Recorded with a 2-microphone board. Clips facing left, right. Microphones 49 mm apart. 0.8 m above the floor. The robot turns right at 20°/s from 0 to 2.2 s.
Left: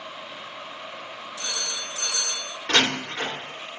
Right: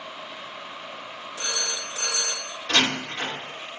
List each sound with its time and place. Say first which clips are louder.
1.4 s a phone ringing: right 2 dB; 35° right (ahead or behind), 0.6 m; by 2.5 s 50° right (ahead or behind), 0.6 m
2.7 s a door slam: left 1 dB; 70° left (ahead or behind), 1.7 m